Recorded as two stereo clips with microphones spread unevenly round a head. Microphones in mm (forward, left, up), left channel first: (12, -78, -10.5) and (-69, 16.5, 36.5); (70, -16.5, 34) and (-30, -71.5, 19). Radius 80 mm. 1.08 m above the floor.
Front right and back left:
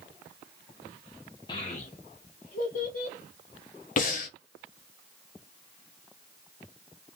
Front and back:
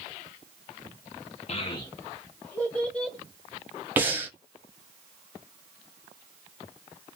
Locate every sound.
1.5 s a child speaking: straight ahead, 0.5 m; by 3.2 s 60° right, 1.7 m
4.0 s breathing: 75° right, 1.0 m